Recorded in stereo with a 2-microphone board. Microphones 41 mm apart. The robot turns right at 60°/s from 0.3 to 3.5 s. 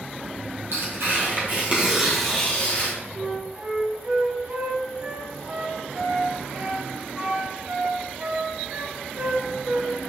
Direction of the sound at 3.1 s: 35° right (ahead or behind).